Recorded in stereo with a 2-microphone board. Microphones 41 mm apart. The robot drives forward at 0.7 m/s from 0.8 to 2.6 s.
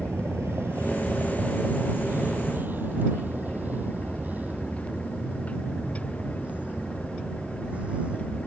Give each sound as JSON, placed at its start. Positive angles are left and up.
{"t": 0.0, "sound": "a vehicle", "side_deg": -85}